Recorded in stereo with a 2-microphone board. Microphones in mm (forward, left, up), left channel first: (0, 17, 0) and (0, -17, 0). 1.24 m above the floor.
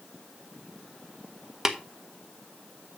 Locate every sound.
1.6 s tapping: 15° right (ahead or behind), 1.2 m